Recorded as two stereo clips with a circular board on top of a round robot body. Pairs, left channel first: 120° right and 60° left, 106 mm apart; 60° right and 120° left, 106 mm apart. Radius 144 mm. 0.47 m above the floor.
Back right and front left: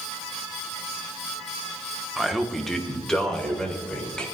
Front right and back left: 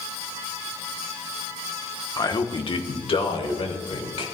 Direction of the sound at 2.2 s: 25° right.